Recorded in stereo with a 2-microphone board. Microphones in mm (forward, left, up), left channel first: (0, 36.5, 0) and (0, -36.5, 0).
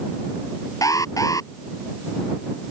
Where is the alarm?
55° left (ahead or behind).